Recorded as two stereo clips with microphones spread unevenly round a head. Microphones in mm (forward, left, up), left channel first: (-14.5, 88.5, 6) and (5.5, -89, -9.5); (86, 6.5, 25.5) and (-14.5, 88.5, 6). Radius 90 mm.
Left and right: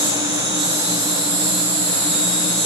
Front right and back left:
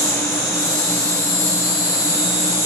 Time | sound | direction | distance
0.0 | an insect | 55° right | 4.5 m